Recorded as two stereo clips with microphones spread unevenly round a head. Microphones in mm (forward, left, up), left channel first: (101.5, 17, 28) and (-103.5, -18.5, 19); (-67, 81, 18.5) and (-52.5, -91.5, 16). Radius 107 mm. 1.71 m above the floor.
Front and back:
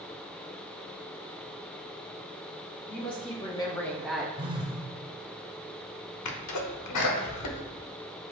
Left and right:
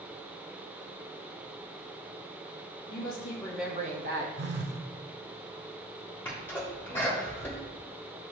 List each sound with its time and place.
2.9 s a woman speaking: 75° left, 0.9 m; by 4.3 s 80° right, 0.9 m
4.4 s a phone buzzing: 100° right, 0.5 m
6.2 s a sneeze: 15° left, 0.9 m